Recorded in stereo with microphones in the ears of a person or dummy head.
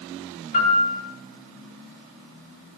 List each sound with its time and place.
0.5 s a piano: 40° left (ahead or behind), 5 m